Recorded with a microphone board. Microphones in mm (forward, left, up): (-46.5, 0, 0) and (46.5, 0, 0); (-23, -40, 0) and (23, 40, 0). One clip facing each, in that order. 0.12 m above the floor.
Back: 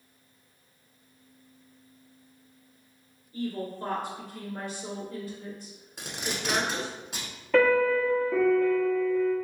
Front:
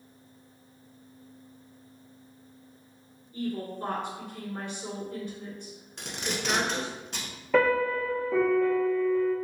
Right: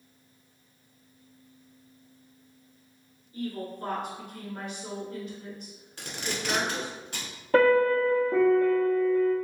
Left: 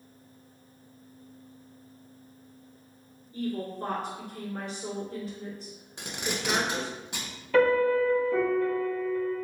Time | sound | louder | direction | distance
3.3 | a woman speaking | even, left 2 dB | 45° left | 1.4 m
6.0 | tape being pulled | front 1 dB, left 1 dB | 105° left | 0.8 m
7.5 | a piano | back 2 dB, right 1 dB | 80° right | 1.2 m